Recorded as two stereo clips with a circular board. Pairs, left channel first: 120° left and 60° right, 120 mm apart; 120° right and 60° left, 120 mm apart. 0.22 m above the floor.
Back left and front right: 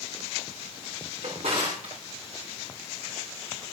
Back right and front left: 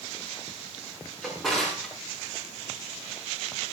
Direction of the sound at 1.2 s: 35° right.